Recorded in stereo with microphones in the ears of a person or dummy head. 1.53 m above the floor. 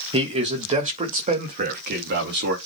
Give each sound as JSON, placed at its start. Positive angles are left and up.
{"t": 0.1, "sound": "a man speaking", "side_deg": -25, "distance_m": 2.0}